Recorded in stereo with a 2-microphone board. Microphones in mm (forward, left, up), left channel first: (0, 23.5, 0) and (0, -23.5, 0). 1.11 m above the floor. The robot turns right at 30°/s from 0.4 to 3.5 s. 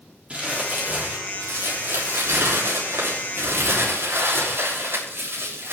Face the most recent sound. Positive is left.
turn(degrees=-60)